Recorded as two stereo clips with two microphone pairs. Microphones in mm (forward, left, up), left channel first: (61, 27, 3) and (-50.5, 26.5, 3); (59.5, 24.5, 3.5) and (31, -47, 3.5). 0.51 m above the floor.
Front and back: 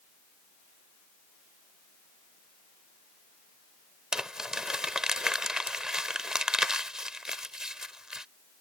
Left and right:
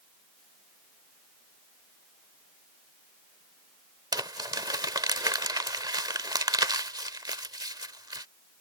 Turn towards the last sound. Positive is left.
turn(degrees=-95)